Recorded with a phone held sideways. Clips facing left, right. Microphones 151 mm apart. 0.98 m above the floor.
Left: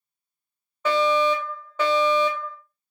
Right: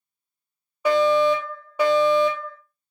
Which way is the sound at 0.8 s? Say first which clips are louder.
Right 3 dB; 10° right (ahead or behind).